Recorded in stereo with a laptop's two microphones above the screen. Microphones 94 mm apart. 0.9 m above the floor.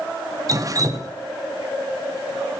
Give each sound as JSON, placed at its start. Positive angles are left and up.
{"t": 0.5, "sound": "dripping", "side_deg": -35, "distance_m": 0.5}